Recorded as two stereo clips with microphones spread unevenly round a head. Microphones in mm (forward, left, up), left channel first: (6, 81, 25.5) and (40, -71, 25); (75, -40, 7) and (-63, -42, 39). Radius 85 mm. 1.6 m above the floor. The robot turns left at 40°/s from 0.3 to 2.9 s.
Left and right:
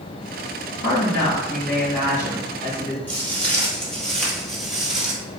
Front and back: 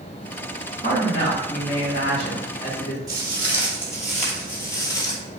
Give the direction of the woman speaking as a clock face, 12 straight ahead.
8 o'clock.